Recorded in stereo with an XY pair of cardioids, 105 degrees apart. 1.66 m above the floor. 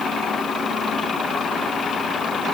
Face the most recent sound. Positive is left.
No sound to turn to.